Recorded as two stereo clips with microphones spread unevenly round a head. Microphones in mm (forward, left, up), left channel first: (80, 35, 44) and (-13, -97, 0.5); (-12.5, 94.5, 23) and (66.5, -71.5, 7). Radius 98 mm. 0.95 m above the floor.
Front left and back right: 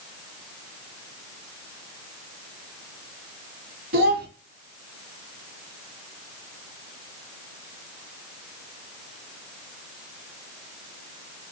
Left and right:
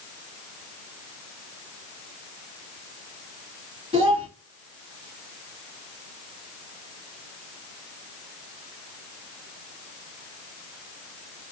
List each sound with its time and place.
3.9 s a child speaking: 125° right, 1.2 m